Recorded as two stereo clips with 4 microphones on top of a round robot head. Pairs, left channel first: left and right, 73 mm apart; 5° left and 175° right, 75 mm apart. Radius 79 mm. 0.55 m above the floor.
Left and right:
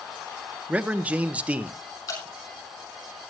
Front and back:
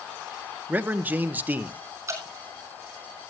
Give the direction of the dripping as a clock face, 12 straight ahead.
8 o'clock.